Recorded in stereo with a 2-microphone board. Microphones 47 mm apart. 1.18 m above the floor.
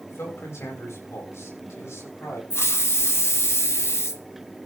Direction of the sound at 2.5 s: 65° left (ahead or behind).